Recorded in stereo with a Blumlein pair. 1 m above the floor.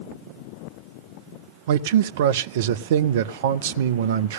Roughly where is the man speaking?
Ahead right.